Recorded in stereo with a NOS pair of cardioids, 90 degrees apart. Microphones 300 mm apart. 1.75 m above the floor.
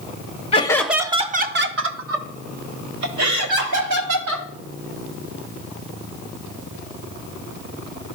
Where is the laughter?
20° left, 0.7 m; by 4.5 s 70° right, 2.5 m.